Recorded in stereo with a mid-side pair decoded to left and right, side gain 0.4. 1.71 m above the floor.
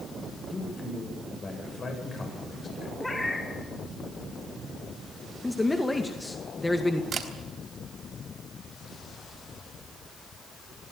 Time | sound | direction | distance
0.5 | a man speaking | 45° left | 8.5 m
3.0 | a cat meowing | 20° left | 8.5 m
5.4 | a man speaking | 20° left | 2 m
7.1 | a camera shutter | 55° right | 4 m